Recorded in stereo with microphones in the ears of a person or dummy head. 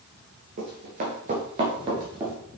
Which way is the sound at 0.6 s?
40° right (ahead or behind).